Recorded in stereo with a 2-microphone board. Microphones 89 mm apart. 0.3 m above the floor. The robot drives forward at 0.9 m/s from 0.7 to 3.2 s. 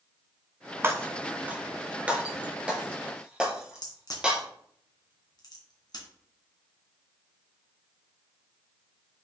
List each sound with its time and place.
0.8 s breaking glass: 25° right (ahead or behind), 1.2 m; by 4.4 s 10° right (ahead or behind), 3 m
3.8 s a crack: 50° left (ahead or behind), 2.5 m